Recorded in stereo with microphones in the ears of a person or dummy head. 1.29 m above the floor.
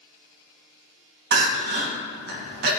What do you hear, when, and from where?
1.3 s crying: 60° right (ahead or behind), 0.9 m